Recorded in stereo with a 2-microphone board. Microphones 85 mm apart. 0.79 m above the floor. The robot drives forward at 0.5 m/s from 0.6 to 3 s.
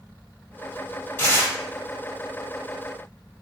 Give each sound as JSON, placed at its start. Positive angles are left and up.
{"t": 1.2, "sound": "tearing paper", "side_deg": 30, "distance_m": 1.7}